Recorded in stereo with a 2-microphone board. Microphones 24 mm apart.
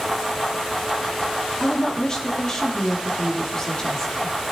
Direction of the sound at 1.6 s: 30° left (ahead or behind).